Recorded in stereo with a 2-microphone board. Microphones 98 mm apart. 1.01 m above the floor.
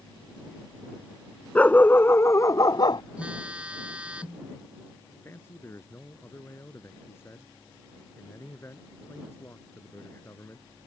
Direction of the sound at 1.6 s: 15° left (ahead or behind).